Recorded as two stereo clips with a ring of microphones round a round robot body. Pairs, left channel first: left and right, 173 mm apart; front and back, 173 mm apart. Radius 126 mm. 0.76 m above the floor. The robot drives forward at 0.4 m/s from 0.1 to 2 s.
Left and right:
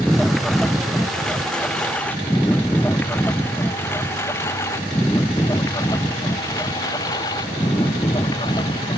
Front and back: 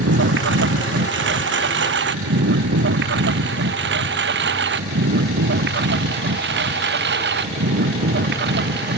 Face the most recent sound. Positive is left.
turn(degrees=165)